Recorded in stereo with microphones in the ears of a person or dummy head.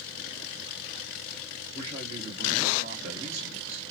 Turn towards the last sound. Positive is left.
turn(degrees=-35)  # may be behind; listen again after turning